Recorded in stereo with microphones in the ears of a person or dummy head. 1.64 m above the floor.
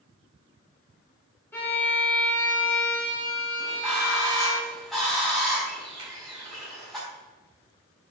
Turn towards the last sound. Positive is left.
turn(degrees=-25)  # may be behind; listen again after turning